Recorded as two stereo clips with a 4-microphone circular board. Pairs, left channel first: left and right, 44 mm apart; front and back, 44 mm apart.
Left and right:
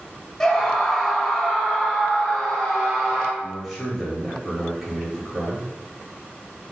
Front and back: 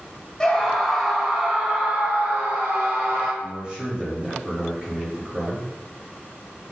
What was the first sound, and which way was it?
A scream, 40° left.